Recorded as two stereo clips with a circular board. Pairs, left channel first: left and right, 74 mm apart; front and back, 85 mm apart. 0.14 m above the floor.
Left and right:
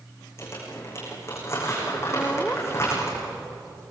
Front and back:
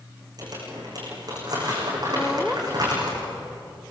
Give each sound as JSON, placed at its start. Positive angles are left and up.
{"t": 0.4, "sound": "crumpling", "azimuth_deg": 140, "distance_m": 9.5}
{"t": 2.2, "sound": "laughter", "azimuth_deg": 110, "distance_m": 1.0}